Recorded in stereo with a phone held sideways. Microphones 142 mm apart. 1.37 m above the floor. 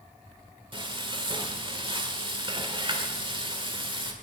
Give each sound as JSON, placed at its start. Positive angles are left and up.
{"t": 0.7, "sound": "frying", "side_deg": -35, "distance_m": 1.8}